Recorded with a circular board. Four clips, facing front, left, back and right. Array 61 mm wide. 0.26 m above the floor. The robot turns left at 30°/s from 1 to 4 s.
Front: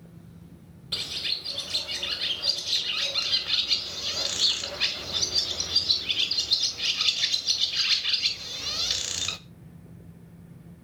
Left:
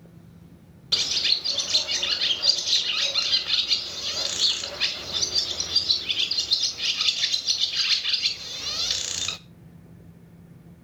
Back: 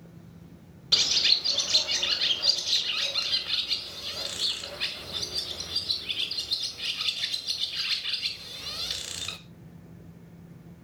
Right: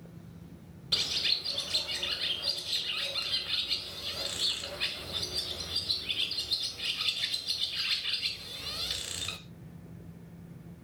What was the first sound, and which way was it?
A bird, 150° left.